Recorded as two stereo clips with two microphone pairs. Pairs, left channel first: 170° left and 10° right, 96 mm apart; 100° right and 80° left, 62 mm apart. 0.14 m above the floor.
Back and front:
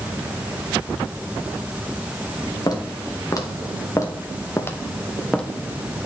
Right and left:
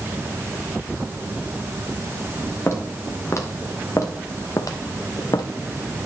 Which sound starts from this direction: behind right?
Footsteps, at 2.7 s.